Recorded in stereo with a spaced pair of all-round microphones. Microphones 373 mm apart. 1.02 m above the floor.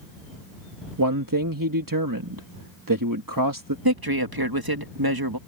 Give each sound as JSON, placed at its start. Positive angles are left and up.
{"t": 1.0, "sound": "a man speaking", "side_deg": -60}
{"t": 3.9, "sound": "a man speaking", "side_deg": -75}